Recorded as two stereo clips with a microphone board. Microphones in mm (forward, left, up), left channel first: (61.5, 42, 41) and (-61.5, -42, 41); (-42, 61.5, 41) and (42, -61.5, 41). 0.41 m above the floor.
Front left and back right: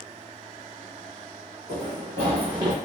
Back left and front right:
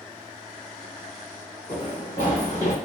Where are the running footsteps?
175° right, 1.7 m; by 2.8 s 155° left, 1.0 m.